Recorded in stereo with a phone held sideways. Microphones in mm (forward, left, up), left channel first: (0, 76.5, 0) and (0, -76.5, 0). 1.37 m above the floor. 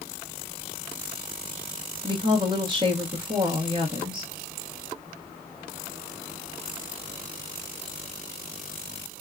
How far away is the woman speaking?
About 1.0 m.